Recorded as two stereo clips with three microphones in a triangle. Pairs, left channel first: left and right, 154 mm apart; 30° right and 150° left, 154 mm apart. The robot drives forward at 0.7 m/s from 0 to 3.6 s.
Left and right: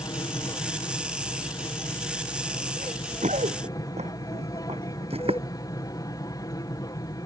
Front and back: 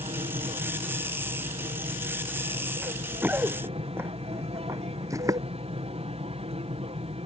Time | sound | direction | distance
0.0 | an aircraft | 135° left | ?
2.8 | running footsteps | 125° right | ?